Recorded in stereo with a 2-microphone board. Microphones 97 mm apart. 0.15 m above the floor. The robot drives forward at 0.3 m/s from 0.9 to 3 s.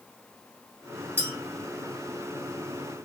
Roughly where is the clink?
Right.